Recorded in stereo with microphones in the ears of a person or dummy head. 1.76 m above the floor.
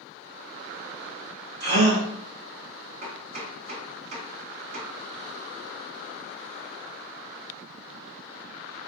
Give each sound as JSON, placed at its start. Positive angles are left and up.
{"t": 1.6, "sound": "a gasp", "side_deg": -65, "distance_m": 2.0}
{"t": 3.0, "sound": "chopping", "side_deg": -75, "distance_m": 1.4}